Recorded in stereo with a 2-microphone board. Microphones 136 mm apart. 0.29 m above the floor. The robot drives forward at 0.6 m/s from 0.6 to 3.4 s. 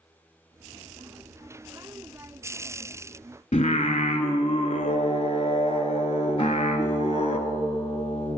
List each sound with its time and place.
3.5 s singing: 65° left (ahead or behind), 0.6 m
6.4 s a guitar: 45° left (ahead or behind), 1.5 m